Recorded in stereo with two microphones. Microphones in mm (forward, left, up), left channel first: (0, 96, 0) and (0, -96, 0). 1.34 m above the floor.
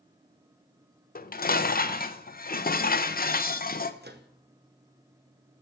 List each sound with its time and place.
1.1 s dishes clattering: 50° left (ahead or behind), 0.5 m
4.0 s a microwave: 60° right (ahead or behind), 0.9 m